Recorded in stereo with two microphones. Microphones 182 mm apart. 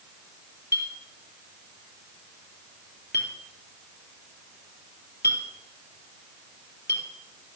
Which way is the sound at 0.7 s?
65° left (ahead or behind).